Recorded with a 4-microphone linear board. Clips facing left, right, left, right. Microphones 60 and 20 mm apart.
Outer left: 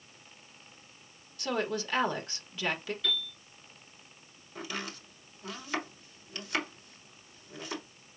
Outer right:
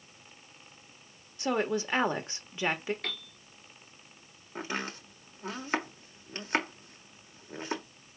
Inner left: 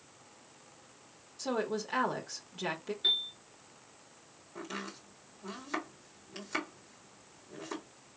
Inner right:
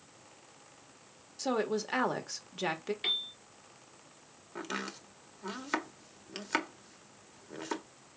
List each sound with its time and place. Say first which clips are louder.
1.4 s a woman speaking: outer right 3 dB, inner right 2 dB; 25° right (ahead or behind), 1.1 m
3.0 s a piano: outer left 4 dB, inner left 4 dB; 80° right, 2 m
4.5 s chopping: outer right 3 dB, inner right 3 dB; 40° right (ahead or behind), 1.2 m